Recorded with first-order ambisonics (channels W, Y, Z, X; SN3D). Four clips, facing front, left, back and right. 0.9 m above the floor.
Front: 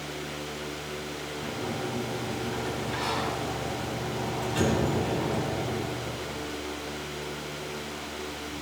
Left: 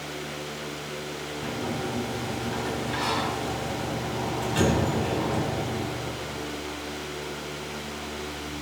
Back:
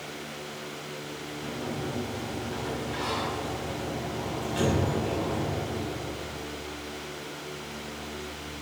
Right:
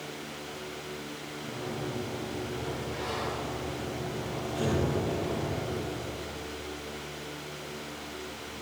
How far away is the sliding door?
About 3 m.